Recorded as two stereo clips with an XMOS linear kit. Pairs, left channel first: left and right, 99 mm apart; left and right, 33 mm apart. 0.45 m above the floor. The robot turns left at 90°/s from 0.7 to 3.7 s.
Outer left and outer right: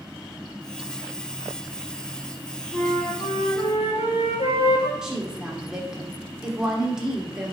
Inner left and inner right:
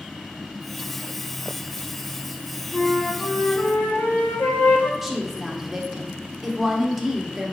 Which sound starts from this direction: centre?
A woman speaking, at 5.0 s.